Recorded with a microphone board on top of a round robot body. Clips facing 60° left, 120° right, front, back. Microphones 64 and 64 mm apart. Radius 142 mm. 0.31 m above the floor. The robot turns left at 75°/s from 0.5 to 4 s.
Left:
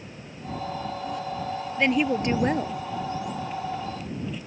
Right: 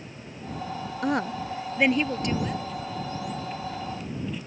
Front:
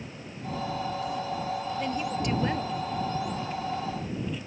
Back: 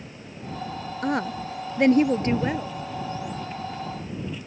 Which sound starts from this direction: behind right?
A woman speaking, at 1.0 s.